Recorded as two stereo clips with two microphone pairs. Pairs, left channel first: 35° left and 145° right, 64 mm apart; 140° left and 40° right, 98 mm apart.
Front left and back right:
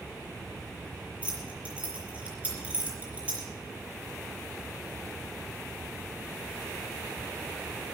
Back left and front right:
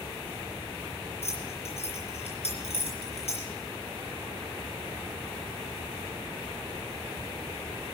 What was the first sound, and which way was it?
Keys jangling, 145° left.